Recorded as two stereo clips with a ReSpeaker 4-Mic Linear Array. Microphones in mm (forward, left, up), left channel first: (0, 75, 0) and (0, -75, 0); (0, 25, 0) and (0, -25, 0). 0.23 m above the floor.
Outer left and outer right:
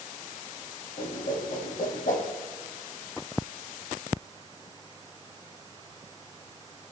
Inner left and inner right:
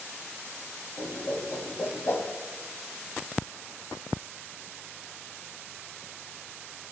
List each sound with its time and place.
1.0 s a whoosh: 60° left (ahead or behind), 2.5 m